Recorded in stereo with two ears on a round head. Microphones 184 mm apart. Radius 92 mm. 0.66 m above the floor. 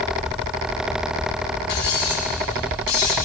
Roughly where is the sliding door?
No sliding door in this recording.